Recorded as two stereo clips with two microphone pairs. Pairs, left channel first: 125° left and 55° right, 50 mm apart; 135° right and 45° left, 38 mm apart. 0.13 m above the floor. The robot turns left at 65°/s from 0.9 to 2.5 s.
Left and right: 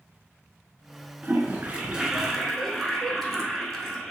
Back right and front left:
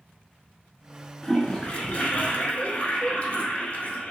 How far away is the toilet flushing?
About 0.8 m.